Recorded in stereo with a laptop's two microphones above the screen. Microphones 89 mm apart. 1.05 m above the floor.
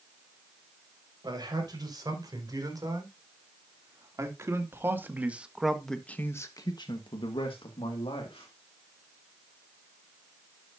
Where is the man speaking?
45° right (ahead or behind), 5.5 m; by 8.5 s 80° left, 2.5 m.